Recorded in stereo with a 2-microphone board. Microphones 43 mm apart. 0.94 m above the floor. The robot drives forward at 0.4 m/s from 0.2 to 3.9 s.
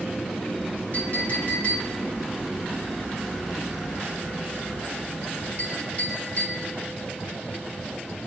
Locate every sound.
0.9 s a clink: 45° left (ahead or behind), 3 m; by 6.6 s 35° left (ahead or behind), 4 m